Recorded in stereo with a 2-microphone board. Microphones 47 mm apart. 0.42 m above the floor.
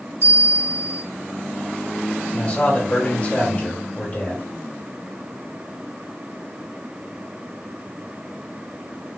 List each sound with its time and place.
0.2 s a bell: 70° right (ahead or behind), 1.2 m
2.3 s a man speaking: 30° left (ahead or behind), 1.5 m